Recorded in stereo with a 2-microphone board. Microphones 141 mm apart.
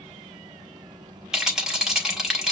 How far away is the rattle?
About 1.4 m.